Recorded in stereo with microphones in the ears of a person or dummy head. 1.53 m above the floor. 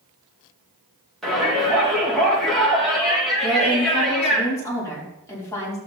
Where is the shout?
Centre (ahead or behind), 4 m.